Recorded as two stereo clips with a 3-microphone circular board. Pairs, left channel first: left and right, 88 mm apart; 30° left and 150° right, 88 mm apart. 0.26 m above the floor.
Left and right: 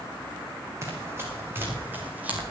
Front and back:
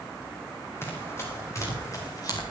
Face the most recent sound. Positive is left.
turn(degrees=-15)